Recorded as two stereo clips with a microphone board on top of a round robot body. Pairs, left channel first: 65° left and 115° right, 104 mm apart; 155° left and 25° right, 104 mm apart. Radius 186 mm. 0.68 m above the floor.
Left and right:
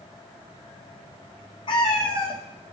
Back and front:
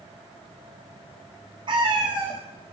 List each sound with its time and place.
1.7 s a cat meowing: 25° left, 1.0 m